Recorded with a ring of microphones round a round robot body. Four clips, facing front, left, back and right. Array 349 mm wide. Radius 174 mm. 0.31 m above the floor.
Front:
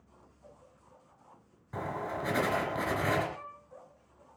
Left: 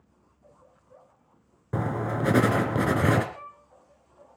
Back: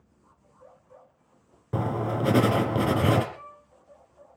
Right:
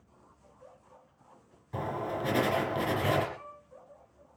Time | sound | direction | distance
1.7 | writing | 135° left | 2.5 m
3.3 | a violin | 70° left | 7 m